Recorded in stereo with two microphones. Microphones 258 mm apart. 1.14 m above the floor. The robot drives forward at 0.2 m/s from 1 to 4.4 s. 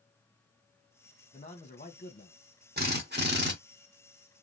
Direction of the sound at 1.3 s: 25° left (ahead or behind).